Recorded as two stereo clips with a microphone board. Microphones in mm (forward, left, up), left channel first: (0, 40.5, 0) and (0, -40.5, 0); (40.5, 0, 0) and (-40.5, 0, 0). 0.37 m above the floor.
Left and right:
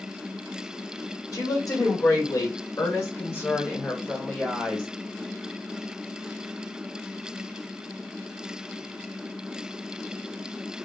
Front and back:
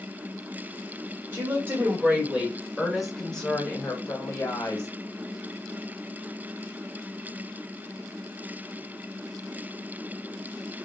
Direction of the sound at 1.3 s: 120° left.